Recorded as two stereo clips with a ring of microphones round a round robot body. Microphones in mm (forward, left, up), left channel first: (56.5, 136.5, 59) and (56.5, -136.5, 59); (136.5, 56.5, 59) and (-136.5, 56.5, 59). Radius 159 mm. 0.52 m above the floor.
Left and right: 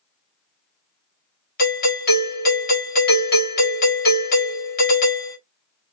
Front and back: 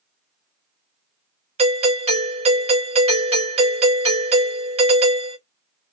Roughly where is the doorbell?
Behind left.